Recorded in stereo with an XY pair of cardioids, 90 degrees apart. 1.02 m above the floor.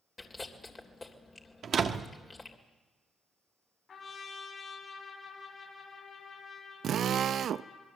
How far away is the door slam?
About 1.5 m.